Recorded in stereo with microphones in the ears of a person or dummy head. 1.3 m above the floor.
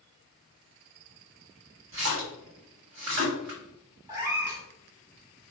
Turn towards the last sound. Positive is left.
turn(degrees=-15)  # may be behind; listen again after turning